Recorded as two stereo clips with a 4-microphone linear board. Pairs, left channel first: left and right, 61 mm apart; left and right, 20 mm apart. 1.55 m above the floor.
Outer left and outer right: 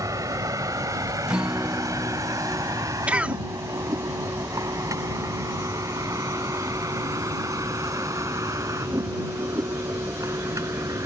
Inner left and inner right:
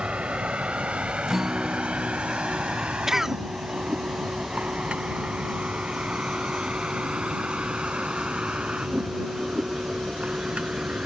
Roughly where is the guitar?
Centre.